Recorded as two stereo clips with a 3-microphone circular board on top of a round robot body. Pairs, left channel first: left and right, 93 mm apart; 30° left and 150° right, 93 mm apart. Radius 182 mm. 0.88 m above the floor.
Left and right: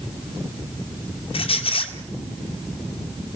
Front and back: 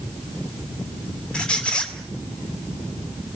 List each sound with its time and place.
1.3 s a squeak: 110° left, 2 m